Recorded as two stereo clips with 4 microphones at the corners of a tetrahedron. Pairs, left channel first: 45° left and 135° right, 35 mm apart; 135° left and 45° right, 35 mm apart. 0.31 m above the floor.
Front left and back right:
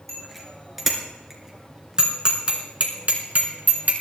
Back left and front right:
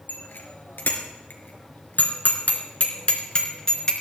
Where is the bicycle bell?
130° left, 3.5 m; by 3.9 s 160° right, 3 m.